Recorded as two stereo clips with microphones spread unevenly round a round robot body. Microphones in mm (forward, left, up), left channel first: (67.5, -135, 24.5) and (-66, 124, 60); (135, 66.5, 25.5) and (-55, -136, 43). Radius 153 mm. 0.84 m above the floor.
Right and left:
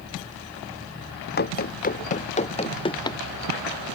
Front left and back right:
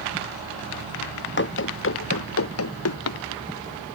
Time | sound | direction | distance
1.4 | running footsteps | 5° right | ?